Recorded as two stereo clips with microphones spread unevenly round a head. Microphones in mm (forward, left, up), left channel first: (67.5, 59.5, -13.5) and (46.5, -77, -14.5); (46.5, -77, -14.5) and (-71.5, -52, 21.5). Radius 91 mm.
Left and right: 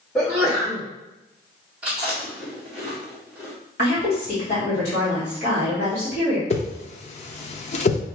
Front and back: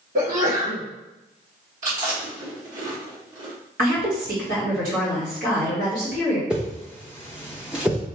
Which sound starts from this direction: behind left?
A woman speaking, at 3.8 s.